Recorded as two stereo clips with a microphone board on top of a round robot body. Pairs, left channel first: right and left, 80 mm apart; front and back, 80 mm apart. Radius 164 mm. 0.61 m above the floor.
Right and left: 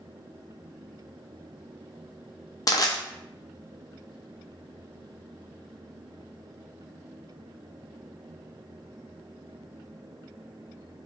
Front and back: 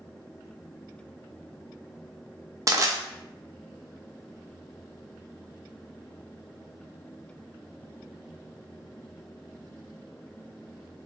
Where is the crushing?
130° right, 0.6 m.